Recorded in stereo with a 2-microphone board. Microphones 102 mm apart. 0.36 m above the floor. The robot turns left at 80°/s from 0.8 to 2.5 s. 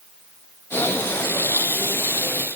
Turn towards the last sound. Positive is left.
No sound to turn to.